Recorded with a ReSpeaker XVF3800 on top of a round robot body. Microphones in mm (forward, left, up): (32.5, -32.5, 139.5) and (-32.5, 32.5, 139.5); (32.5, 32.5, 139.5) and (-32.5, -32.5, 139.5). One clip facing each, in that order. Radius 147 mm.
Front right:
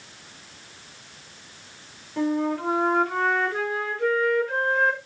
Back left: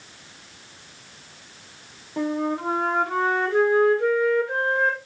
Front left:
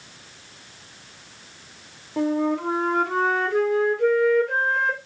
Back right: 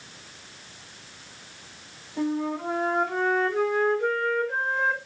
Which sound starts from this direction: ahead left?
A flute, at 2.2 s.